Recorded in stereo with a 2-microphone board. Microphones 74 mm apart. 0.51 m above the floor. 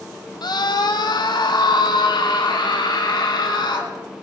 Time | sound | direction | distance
0.4 | a scream | 70° left (ahead or behind) | 2 m